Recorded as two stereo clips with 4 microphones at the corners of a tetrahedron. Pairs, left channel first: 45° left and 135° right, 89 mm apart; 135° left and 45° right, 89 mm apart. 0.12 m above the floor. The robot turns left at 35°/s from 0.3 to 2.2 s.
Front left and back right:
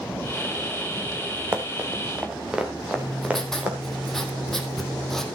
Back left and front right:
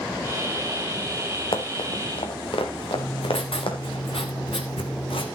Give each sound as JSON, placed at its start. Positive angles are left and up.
{"t": 1.5, "sound": "running footsteps", "azimuth_deg": 155, "distance_m": 2.0}
{"t": 3.0, "sound": "writing", "azimuth_deg": 130, "distance_m": 1.4}